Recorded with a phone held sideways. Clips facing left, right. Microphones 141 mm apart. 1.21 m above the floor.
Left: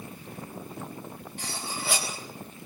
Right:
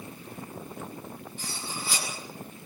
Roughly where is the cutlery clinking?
Left.